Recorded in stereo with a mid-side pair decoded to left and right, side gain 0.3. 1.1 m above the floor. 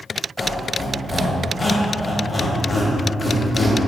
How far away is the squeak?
About 1.2 m.